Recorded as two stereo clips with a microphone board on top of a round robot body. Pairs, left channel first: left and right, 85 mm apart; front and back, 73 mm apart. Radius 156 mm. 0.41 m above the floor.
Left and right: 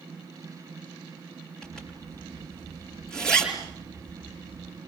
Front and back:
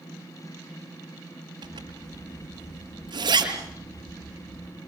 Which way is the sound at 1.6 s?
170° left.